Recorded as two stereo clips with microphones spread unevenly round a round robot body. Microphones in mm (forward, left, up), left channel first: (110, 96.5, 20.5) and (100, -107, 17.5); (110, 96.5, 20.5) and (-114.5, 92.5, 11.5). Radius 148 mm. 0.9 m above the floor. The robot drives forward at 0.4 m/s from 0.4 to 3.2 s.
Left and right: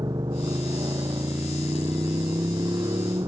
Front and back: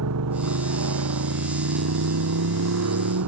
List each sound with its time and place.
0.0 s a motorcycle: 175° right